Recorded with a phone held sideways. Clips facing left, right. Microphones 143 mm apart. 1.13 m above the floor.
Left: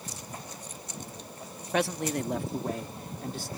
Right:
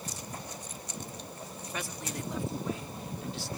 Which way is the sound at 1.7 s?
70° left (ahead or behind).